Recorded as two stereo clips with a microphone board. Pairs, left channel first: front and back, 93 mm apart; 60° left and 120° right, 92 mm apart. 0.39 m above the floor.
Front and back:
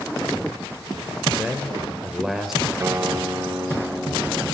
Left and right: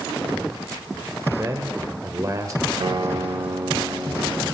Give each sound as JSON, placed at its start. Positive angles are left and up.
{"t": 1.4, "sound": "a man speaking", "azimuth_deg": -95, "distance_m": 1.5}
{"t": 2.8, "sound": "a guitar", "azimuth_deg": -125, "distance_m": 1.9}